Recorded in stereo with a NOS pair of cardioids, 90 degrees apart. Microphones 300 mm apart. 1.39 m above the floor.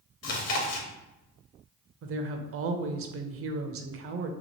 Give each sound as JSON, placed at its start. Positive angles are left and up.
{"t": 0.2, "sound": "chewing", "azimuth_deg": 60, "distance_m": 0.8}
{"t": 2.0, "sound": "a woman speaking", "azimuth_deg": -50, "distance_m": 0.5}